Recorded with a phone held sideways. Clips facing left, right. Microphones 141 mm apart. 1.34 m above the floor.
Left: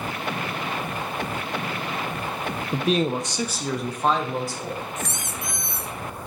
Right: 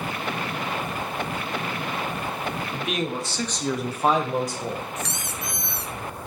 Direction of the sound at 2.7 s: 45° left (ahead or behind).